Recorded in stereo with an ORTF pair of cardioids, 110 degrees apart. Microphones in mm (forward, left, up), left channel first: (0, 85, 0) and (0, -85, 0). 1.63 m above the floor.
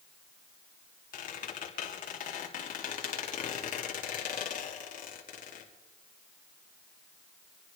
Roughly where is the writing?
I don't hear writing.